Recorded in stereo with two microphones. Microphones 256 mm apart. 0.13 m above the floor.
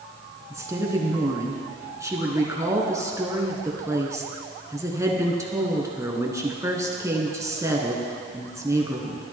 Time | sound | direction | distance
0.5 | a woman speaking | 10° right (ahead or behind) | 1.1 m